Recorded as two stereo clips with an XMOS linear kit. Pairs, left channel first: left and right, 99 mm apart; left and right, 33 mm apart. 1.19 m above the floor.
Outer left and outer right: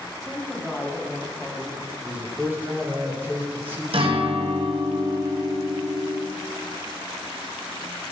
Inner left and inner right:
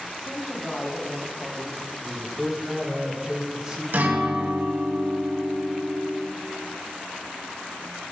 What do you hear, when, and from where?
0.2 s a woman speaking: centre (ahead or behind), 1.2 m
2.0 s a man speaking: 20° right (ahead or behind), 1.3 m
3.9 s a guitar: 65° right (ahead or behind), 0.9 m